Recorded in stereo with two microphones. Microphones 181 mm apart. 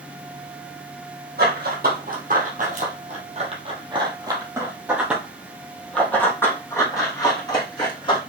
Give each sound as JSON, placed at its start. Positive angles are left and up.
{"t": 1.4, "sound": "running footsteps", "side_deg": -60, "distance_m": 2.5}